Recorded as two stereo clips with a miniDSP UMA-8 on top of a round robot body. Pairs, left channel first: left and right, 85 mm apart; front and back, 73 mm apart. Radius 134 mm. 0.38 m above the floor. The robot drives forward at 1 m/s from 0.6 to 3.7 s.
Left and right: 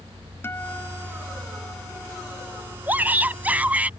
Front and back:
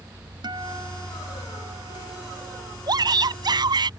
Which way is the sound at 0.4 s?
155° left.